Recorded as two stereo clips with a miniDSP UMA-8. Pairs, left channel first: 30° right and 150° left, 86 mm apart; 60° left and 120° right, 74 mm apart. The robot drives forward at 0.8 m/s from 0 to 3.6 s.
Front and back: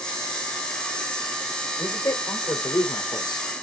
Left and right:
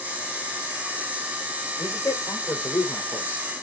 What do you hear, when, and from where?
1.8 s a man speaking: 5° left, 3.5 m; by 3.5 s 10° left, 1.9 m